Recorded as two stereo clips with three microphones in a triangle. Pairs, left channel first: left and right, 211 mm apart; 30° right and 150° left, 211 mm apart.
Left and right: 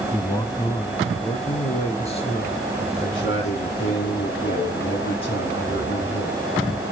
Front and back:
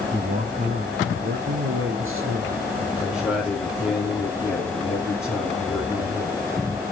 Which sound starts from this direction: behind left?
A man speaking, at 0.1 s.